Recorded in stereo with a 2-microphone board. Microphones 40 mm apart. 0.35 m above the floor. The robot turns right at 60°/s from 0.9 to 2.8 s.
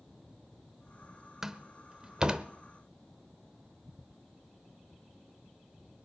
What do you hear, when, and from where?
1.4 s a door slam: 15° right (ahead or behind), 0.7 m; by 2.5 s 20° right (ahead or behind), 0.7 m